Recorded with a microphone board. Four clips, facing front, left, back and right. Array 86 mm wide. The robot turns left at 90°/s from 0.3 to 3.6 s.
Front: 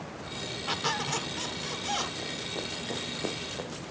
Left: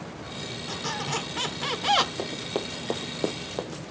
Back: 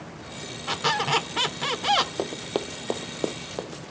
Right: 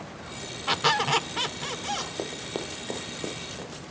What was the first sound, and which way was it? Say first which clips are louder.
A squeak: right 8 dB, back 7 dB; 105° right.